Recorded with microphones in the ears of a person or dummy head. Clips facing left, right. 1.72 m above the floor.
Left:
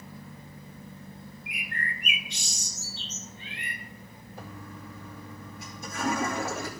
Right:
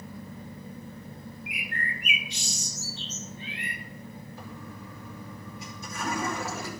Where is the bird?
55° left (ahead or behind), 1.2 m.